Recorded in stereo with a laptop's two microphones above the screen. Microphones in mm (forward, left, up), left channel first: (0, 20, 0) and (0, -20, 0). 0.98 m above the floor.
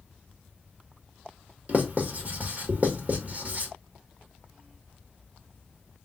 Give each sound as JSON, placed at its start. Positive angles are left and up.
{"t": 1.7, "sound": "writing", "side_deg": -40, "distance_m": 1.6}